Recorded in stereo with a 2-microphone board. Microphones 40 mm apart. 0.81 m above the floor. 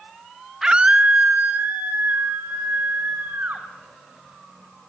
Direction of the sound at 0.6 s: 15° right (ahead or behind).